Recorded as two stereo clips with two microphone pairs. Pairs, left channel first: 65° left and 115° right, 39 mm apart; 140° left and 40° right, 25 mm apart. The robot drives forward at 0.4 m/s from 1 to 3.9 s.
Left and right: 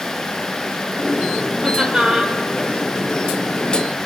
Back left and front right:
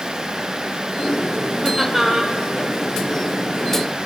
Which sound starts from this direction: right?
Laughter, at 1.6 s.